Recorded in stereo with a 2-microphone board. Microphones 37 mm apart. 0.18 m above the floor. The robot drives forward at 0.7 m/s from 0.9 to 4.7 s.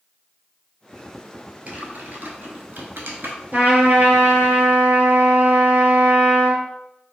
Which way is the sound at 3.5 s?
50° right (ahead or behind).